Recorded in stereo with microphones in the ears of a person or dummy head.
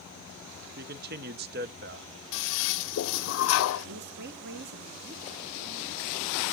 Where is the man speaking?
50° right (ahead or behind), 0.8 m.